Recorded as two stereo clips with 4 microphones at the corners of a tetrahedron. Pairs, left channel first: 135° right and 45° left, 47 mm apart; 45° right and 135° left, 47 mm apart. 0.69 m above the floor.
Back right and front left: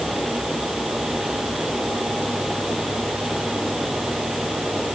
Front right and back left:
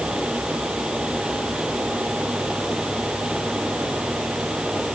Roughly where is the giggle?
I don't hear a giggle.